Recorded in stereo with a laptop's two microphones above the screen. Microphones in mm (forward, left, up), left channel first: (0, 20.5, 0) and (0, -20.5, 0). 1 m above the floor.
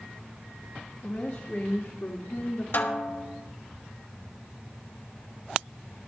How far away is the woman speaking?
About 2.0 m.